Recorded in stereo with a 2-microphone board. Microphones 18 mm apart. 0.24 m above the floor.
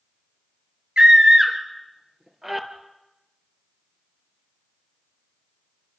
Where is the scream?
55° right (ahead or behind), 3.5 m; by 2.7 s 20° right (ahead or behind), 4 m.